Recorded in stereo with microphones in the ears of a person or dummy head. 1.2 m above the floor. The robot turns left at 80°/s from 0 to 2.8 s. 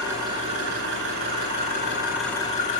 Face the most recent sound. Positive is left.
turn(degrees=135)